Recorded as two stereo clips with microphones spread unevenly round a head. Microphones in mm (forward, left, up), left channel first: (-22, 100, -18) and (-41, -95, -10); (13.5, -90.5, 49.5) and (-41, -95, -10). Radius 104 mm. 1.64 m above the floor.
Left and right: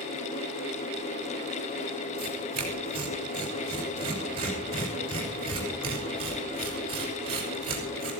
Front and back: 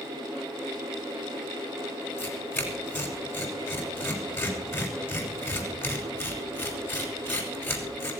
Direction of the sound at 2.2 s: 30° right.